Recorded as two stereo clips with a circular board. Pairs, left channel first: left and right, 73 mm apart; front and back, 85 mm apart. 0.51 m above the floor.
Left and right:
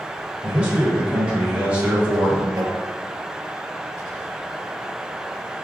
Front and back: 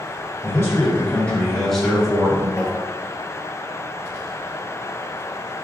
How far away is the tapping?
About 1.0 m.